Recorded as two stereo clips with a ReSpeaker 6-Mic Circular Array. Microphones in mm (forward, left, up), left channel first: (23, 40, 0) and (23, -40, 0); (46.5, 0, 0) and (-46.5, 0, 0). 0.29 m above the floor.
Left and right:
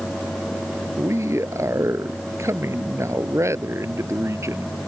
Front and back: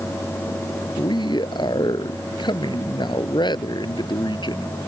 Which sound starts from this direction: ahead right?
A man speaking, at 1.0 s.